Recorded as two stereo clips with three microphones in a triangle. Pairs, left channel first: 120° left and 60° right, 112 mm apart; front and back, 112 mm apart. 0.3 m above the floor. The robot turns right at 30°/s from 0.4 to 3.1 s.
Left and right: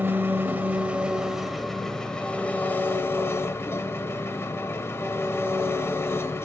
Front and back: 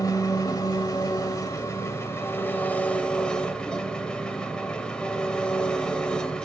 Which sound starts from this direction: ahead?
An engine running, at 0.0 s.